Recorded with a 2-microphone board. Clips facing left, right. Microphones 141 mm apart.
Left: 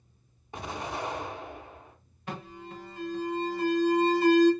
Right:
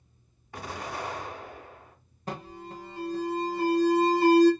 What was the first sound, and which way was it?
An explosion, 20° left (ahead or behind).